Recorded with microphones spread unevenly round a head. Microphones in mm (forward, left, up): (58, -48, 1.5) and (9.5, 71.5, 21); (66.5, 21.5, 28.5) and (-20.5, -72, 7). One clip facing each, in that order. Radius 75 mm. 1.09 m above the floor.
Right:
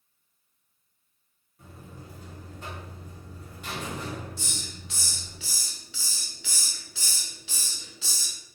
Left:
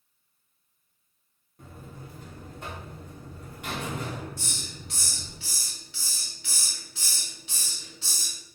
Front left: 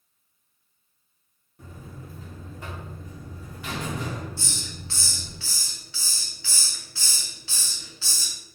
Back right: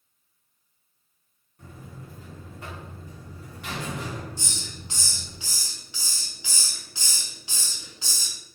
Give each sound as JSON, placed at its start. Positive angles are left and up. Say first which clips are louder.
{"t": 1.6, "sound": "a buzzer", "louder": "left 2 dB, front left 1 dB", "azimuth_deg": 75, "distance_m": 1.0}
{"t": 4.4, "sound": "a hiss", "louder": "even, front left 1 dB", "azimuth_deg": -55, "distance_m": 0.7}